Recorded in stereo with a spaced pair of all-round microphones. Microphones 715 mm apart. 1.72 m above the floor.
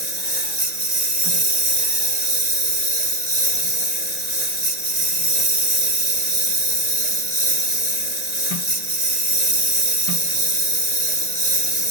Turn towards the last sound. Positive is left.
turn(degrees=-70)  # may be behind; listen again after turning